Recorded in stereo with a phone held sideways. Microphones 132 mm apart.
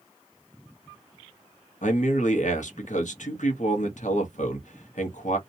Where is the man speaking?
65° left (ahead or behind), 0.9 m.